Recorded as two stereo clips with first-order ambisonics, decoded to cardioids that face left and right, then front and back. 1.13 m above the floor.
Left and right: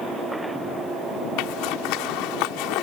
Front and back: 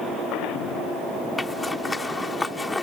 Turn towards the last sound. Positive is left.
turn(degrees=80)